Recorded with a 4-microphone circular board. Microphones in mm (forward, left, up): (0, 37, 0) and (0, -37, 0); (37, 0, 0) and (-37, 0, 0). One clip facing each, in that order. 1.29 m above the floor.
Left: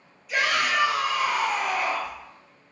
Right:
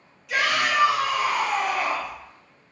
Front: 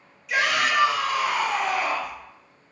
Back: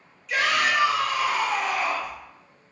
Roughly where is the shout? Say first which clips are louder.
Right 1 dB, even; right.